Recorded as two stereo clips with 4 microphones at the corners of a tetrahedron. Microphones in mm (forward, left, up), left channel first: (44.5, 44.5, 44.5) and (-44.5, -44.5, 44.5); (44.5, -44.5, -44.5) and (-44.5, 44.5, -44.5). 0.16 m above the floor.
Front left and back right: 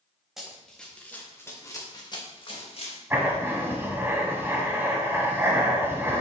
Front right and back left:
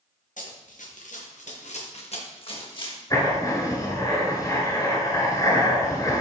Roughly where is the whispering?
No whispering in this recording.